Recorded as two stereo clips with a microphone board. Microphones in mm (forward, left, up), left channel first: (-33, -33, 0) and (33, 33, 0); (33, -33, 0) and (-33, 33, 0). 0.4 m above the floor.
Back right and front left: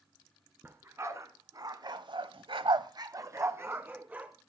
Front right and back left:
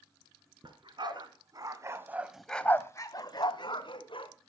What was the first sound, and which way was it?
A dog barking, 105° left.